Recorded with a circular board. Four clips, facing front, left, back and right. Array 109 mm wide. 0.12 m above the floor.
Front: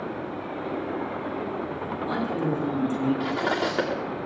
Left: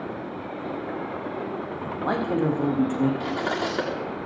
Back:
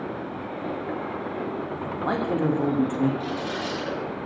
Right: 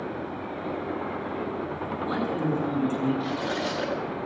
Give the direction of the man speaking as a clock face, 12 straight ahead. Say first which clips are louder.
Left 4 dB, back 3 dB; 8 o'clock.